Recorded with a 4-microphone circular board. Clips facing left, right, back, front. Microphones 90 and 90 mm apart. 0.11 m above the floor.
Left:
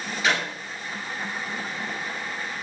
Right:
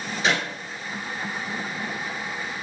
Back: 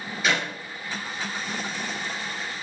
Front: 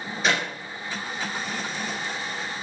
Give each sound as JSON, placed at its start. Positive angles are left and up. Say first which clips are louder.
{"t": 0.2, "sound": "a clap", "louder": "even, front 1 dB", "azimuth_deg": -40, "distance_m": 1.7}